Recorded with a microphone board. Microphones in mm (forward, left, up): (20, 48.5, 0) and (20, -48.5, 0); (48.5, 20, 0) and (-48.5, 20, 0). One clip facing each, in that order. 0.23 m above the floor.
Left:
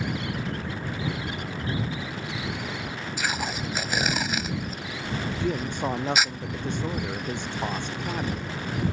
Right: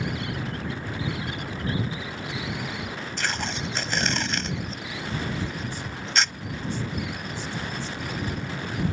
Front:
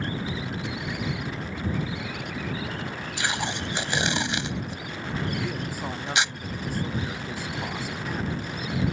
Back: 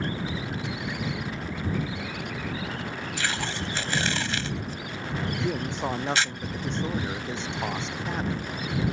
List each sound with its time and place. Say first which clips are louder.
3.2 s tape being pulled: left 1 dB, front 3 dB; 20° left
5.4 s a man speaking: left 6 dB, back 3 dB; 115° left